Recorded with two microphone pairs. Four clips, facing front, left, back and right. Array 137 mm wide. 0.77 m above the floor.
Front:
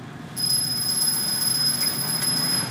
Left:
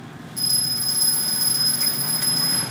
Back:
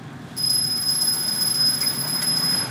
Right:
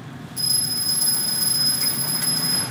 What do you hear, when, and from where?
0.4 s a bell: 175° right, 4 m